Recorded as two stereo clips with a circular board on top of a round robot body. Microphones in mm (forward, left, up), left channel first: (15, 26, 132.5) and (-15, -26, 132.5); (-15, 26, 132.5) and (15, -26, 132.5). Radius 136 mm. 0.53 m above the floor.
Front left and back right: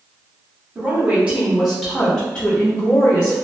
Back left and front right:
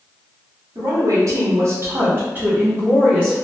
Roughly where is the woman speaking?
Ahead right.